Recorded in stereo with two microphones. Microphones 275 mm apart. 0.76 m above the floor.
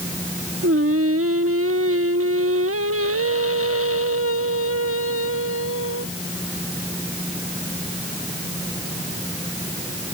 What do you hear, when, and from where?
0.6 s singing: 55° right (ahead or behind)